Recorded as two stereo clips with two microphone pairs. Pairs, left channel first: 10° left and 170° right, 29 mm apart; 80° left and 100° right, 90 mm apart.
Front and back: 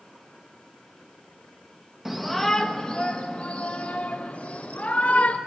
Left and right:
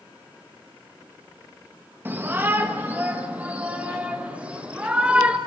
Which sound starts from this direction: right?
A shout, at 2.0 s.